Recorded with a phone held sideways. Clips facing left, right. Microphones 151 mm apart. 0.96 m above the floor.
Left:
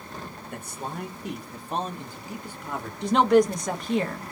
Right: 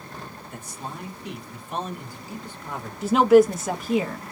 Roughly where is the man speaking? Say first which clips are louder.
Left 3 dB; left.